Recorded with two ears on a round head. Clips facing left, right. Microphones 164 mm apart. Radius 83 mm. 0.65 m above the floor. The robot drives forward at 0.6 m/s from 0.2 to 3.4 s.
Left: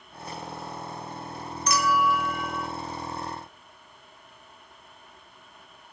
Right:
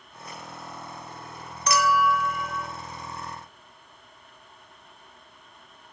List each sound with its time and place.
1.7 s a clink: 50° right (ahead or behind), 0.7 m; by 2.7 s 70° right (ahead or behind), 0.6 m